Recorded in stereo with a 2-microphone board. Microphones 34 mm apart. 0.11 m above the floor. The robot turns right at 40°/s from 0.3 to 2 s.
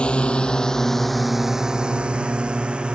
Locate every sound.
0.0 s a drone: 35° left (ahead or behind); by 3.0 s 35° right (ahead or behind)